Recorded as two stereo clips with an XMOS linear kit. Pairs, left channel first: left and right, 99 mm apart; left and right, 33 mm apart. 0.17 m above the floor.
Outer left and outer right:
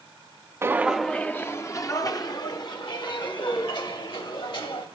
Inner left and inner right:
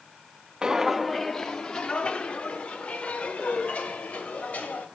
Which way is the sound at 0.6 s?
25° right (ahead or behind).